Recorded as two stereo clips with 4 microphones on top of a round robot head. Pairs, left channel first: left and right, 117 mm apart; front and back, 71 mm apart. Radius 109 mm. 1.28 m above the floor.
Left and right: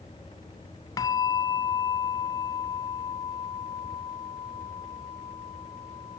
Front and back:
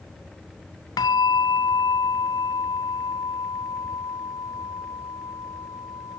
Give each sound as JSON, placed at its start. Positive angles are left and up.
{"t": 1.0, "sound": "a bell", "azimuth_deg": 30}